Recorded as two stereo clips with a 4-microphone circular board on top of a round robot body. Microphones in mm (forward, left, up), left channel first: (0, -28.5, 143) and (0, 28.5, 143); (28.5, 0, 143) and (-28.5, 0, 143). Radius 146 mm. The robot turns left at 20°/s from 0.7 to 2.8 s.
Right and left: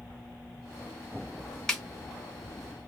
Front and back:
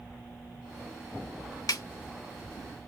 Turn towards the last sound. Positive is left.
turn(degrees=-30)